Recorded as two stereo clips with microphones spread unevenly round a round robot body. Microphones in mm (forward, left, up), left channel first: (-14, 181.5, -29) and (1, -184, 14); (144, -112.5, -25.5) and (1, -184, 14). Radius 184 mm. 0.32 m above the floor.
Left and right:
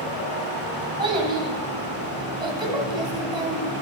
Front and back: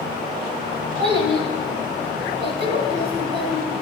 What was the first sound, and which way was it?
A child speaking, 170° right.